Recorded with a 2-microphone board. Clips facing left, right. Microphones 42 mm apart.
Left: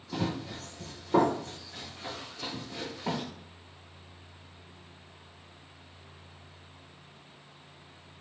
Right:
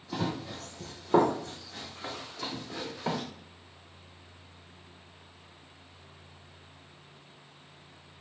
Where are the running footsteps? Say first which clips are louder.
Even; 25° right (ahead or behind), 0.8 m; by 3.2 s 75° right (ahead or behind), 1.6 m.